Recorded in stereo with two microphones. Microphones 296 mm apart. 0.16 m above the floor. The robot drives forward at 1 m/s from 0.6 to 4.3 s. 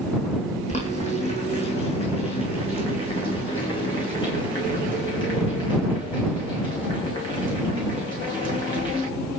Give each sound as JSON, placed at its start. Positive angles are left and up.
{"t": 0.7, "sound": "boiling", "side_deg": 25, "distance_m": 9.0}